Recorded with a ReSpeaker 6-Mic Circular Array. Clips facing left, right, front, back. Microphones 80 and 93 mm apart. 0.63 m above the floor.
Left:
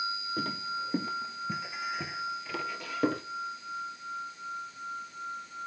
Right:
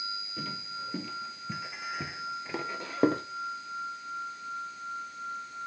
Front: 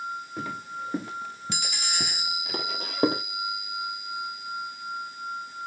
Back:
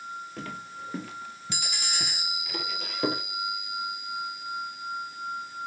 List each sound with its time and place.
0.4 s footsteps: 75° left, 1.0 m; by 3.2 s 45° right, 1.1 m